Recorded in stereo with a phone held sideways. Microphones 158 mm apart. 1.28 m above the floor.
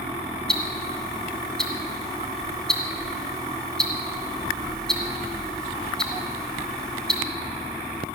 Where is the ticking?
5° left (ahead or behind), 2 m.